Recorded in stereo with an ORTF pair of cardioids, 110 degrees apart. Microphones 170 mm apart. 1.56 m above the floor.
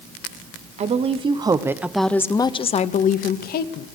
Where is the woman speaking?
40° right, 1.1 m; by 3.9 s 70° left, 1.2 m.